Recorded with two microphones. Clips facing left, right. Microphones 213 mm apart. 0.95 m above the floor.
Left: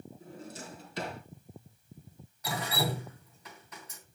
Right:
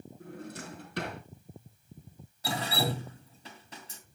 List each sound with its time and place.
0.2 s a drawer: 60° right (ahead or behind), 3 m
2.4 s dripping: 30° right (ahead or behind), 2.5 m